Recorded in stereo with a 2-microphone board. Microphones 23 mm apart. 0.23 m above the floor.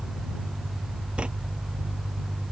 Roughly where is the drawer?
Right.